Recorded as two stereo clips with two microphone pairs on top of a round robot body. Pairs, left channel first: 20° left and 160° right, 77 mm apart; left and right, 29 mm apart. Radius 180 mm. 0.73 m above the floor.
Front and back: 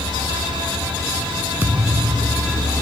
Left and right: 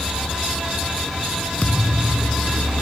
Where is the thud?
125° left.